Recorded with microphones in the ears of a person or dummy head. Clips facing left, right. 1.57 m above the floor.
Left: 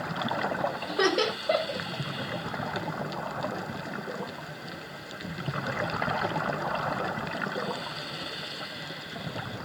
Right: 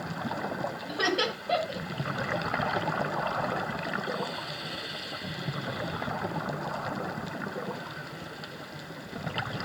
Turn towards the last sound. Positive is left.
turn(degrees=55)  # may be behind; listen again after turning